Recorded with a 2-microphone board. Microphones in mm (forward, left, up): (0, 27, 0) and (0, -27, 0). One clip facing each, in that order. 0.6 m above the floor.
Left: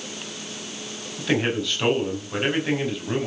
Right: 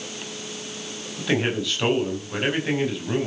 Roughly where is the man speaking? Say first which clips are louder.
Even; centre.